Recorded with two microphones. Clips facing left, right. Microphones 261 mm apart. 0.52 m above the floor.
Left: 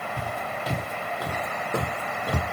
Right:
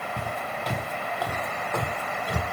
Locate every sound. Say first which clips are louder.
0.2 s footsteps: even; 10° right (ahead or behind), 1.4 m; by 2.4 s 60° left (ahead or behind), 1.2 m